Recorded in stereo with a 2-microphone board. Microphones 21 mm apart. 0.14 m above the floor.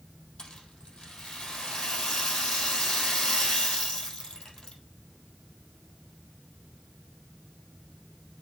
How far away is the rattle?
About 3 m.